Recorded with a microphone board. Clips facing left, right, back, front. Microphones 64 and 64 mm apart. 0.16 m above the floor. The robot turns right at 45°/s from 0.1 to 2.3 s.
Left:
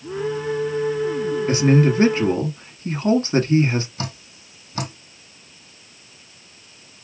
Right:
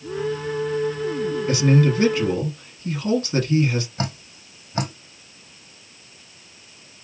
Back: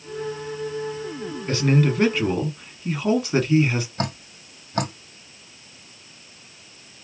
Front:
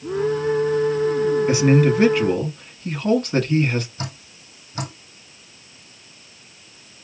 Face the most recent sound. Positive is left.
turn(degrees=-145)